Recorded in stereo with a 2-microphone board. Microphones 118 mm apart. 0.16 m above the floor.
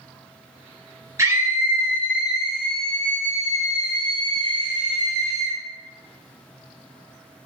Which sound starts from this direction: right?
A scream, at 1.2 s.